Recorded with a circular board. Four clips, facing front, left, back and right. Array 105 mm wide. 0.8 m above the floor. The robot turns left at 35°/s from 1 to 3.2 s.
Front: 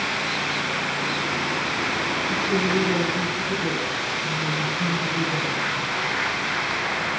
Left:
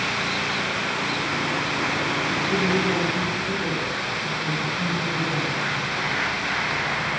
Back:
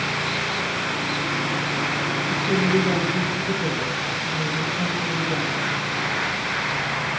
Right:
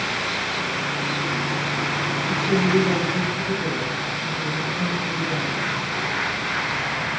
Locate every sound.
2.3 s a woman speaking: 125° right, 4 m; by 6.1 s 155° right, 4 m